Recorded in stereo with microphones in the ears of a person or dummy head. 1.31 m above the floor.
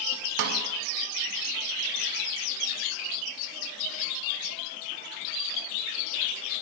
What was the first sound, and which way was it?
A snare drum, 60° right (ahead or behind).